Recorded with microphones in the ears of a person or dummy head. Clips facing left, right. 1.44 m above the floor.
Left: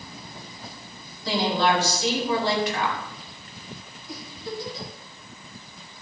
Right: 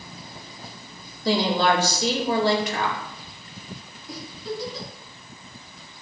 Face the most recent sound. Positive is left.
turn(degrees=-70)  # may be behind; listen again after turning